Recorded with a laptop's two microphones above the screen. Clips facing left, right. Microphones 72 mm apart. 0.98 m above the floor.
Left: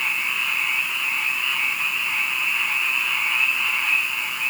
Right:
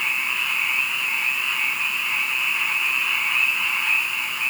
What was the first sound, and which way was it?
Only background noise.